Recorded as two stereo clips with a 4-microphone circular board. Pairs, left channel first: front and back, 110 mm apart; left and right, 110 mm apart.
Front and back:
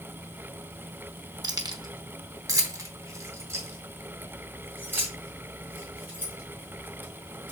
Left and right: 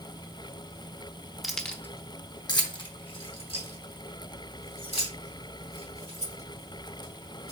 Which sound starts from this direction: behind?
Keys jangling, at 1.4 s.